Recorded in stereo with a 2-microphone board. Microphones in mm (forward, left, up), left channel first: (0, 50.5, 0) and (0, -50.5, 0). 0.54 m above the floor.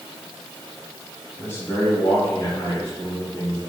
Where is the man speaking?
20° left (ahead or behind), 3 m; by 3.6 s 35° left (ahead or behind), 6 m.